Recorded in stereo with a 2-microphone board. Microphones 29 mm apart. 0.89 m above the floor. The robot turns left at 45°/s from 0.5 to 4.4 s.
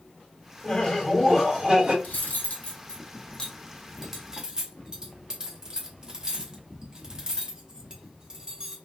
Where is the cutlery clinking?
75° left (ahead or behind), 0.8 m; by 8.8 s 25° right (ahead or behind), 0.8 m.